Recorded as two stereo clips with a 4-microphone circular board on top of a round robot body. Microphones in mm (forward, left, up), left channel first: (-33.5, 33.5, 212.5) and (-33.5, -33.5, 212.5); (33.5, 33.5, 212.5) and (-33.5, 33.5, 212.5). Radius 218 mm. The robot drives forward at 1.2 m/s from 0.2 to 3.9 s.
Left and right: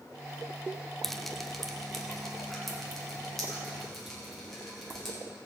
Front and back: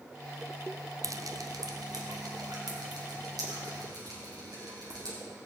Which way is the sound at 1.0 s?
175° left.